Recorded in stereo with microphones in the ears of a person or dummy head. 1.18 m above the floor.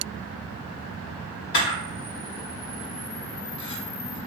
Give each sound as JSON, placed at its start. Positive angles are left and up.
{"t": 1.5, "sound": "a camera shutter", "side_deg": 50, "distance_m": 1.1}